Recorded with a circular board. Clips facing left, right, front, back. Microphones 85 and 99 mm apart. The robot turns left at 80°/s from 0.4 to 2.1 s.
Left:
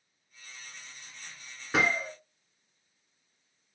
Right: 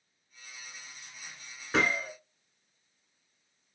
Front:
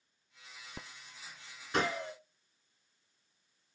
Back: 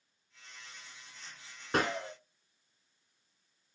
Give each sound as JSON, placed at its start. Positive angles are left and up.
{"t": 1.7, "sound": "a gunshot", "azimuth_deg": 175, "distance_m": 1.0}